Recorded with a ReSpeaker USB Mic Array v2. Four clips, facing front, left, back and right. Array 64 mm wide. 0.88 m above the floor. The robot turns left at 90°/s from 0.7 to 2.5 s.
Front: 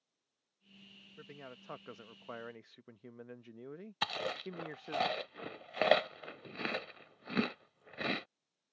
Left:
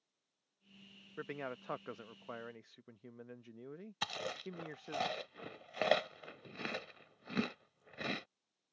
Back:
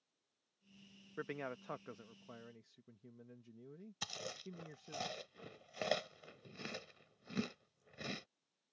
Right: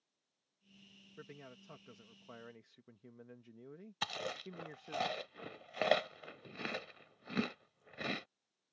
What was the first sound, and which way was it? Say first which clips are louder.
A man speaking: left 10 dB, back 7 dB; 140° left.